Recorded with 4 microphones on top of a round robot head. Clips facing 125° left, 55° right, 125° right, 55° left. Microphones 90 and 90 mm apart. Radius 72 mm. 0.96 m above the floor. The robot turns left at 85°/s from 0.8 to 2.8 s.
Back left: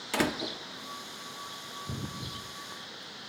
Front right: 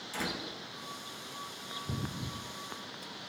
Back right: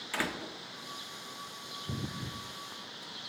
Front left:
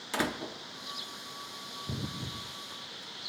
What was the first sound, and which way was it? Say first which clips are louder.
A door slam: back left 8 dB, front left 3 dB; 120° left.